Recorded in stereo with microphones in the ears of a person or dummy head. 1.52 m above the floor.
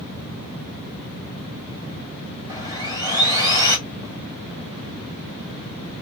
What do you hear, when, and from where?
2.5 s sawing: 20° right (ahead or behind), 2.5 m